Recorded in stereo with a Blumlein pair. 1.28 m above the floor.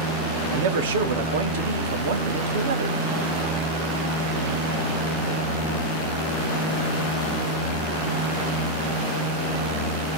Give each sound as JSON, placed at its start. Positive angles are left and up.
{"t": 0.5, "sound": "a man speaking", "azimuth_deg": -60, "distance_m": 0.6}